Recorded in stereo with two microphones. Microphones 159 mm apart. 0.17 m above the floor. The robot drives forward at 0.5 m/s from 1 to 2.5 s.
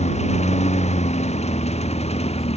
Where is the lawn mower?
45° left (ahead or behind); by 2.6 s 40° left (ahead or behind).